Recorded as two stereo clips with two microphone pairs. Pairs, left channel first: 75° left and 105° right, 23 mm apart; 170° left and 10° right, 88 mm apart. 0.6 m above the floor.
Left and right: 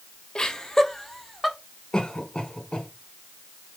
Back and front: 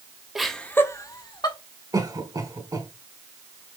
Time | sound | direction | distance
0.3 | laughter | 70° left | 1.1 m
1.9 | a cough | 30° left | 2.5 m